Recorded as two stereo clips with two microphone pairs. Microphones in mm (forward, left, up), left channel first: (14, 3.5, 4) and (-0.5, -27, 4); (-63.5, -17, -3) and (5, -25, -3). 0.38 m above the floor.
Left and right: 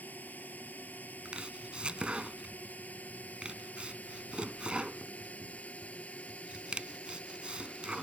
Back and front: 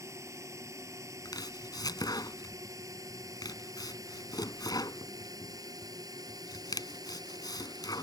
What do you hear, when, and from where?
0.0 s a drone: 40° left; by 8.0 s 15° left
1.2 s chopping: 170° right